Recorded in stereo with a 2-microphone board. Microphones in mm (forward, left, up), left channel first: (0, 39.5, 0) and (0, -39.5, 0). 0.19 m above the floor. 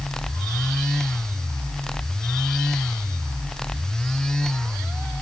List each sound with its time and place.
Only background noise.